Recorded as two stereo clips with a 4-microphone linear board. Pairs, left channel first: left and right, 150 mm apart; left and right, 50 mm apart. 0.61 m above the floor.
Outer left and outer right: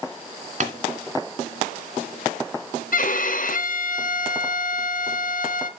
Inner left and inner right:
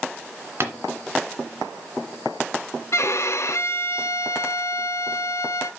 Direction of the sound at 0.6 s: 50° right (ahead or behind).